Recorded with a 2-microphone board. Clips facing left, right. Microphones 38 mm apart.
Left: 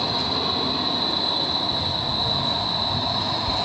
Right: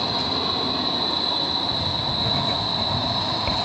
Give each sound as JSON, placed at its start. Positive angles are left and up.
{"t": 1.7, "sound": "writing", "side_deg": -60, "distance_m": 2.5}